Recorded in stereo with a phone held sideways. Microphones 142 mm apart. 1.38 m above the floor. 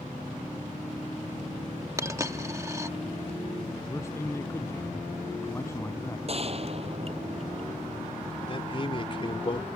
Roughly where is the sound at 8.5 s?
Left.